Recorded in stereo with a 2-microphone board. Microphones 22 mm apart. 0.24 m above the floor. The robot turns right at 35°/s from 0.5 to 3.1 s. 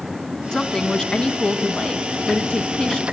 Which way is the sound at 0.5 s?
45° left.